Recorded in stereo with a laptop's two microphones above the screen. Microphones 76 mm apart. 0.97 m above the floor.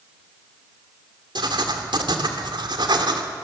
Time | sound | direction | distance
1.4 | writing | 80° right | 2.5 m